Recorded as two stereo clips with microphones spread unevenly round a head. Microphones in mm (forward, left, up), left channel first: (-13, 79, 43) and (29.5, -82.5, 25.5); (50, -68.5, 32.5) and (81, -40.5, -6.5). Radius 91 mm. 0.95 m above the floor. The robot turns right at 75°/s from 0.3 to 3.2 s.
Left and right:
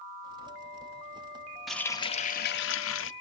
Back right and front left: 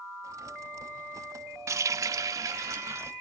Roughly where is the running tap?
Ahead.